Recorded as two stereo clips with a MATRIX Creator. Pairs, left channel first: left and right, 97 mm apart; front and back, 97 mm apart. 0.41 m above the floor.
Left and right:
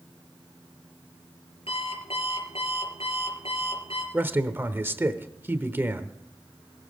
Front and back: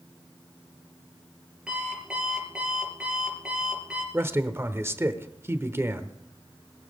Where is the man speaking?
140° right, 1.0 m.